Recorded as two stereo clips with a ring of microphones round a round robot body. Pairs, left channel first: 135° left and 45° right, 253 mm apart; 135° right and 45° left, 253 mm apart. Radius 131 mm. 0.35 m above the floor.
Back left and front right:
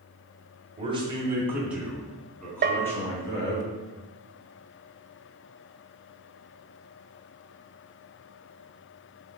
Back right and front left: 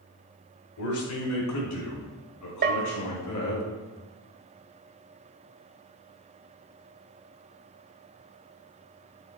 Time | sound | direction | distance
0.8 | a man speaking | 110° right | 2.0 m
2.6 | a bell | straight ahead | 0.7 m